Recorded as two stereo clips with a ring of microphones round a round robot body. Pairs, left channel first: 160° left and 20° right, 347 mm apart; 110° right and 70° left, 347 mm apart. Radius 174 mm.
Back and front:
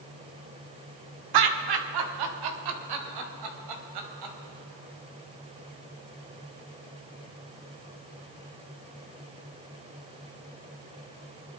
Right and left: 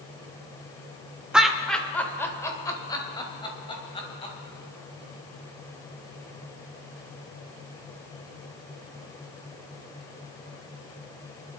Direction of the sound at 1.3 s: 20° right.